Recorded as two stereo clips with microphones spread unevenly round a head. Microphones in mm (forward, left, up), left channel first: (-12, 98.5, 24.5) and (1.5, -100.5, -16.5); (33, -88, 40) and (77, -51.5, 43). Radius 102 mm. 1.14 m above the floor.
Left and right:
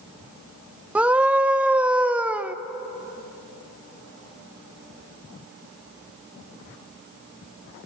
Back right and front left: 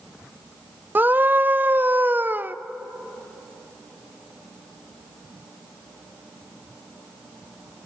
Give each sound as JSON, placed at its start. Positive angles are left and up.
{"t": 0.9, "sound": "a scream", "azimuth_deg": -15, "distance_m": 1.0}